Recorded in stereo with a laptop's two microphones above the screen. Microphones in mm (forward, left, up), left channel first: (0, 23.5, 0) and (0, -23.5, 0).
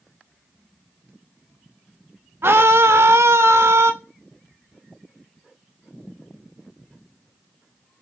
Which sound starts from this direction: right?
A scream, at 2.4 s.